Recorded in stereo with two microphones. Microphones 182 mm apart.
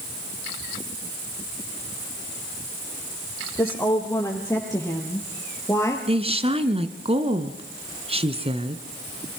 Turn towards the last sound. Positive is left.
turn(degrees=-30)  # may be behind; listen again after turning